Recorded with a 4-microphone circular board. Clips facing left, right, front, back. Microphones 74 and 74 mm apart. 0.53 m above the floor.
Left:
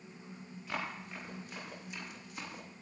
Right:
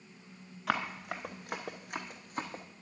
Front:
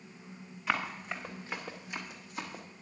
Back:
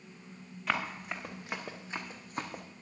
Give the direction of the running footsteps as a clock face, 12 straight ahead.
3 o'clock.